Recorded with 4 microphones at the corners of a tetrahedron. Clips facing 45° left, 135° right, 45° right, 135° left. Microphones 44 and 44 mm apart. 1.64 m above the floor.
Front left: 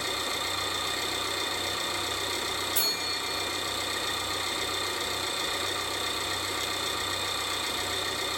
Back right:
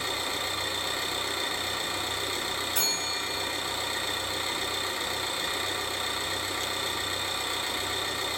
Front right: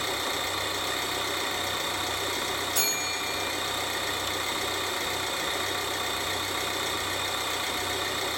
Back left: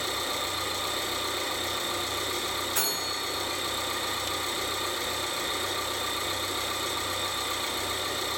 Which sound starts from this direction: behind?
A bell, at 2.8 s.